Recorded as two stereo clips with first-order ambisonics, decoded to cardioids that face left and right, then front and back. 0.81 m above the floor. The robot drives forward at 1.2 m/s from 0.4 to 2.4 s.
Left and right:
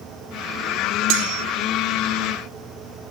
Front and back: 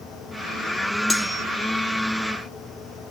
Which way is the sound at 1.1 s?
80° right.